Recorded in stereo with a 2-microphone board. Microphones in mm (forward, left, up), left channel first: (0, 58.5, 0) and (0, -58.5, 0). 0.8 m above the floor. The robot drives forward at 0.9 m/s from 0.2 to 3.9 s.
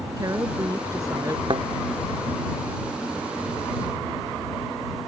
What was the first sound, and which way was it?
A woman speaking, 30° right (ahead or behind).